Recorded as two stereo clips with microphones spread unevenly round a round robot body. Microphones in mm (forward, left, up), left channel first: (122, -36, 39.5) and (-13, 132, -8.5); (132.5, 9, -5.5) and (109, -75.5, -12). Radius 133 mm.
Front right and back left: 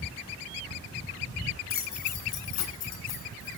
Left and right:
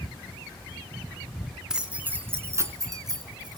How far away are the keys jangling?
About 2.5 m.